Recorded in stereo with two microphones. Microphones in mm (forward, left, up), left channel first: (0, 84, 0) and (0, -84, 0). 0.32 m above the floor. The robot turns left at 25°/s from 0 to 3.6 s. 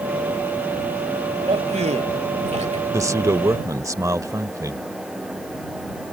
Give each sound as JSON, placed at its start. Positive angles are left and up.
{"t": 1.5, "sound": "a man speaking", "side_deg": -40}
{"t": 2.9, "sound": "a man speaking", "side_deg": -20}